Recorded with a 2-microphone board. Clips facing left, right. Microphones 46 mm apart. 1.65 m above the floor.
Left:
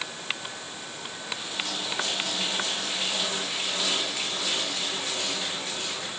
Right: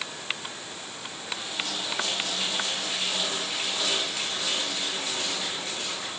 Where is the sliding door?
No sliding door in this recording.